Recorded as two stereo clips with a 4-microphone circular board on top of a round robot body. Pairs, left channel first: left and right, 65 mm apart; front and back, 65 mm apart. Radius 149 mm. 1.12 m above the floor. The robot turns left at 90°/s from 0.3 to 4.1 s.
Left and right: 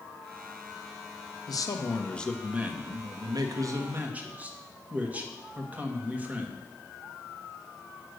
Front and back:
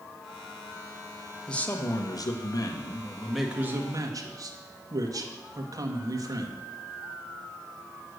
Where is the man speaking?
80° left, 1.3 m; by 6.6 s 155° right, 1.3 m.